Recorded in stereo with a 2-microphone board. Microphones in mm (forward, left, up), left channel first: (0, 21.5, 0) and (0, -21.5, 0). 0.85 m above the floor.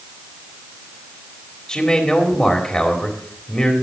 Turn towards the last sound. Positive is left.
turn(degrees=15)  # may be behind; listen again after turning